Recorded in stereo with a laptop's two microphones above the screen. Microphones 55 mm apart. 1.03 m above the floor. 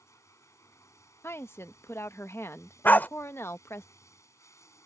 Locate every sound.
0.0 s running water: 80° left
1.2 s a woman speaking: 55° left (ahead or behind)
2.9 s a dog barking: 40° left (ahead or behind)